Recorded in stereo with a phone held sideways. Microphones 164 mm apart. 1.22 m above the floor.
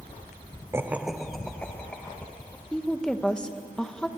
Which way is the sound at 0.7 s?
15° right (ahead or behind).